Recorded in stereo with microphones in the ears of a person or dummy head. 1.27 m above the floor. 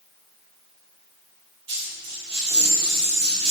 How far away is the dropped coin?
About 1.8 m.